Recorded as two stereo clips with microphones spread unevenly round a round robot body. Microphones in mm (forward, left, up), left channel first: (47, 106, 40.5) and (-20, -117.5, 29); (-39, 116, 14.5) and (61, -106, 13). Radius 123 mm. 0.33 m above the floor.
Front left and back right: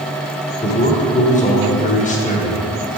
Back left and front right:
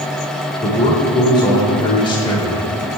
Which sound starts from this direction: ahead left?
A man speaking, at 0.6 s.